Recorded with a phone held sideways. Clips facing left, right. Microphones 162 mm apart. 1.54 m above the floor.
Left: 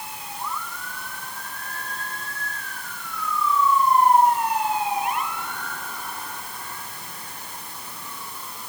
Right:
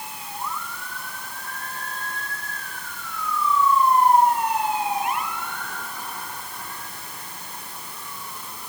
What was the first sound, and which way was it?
Only background noise.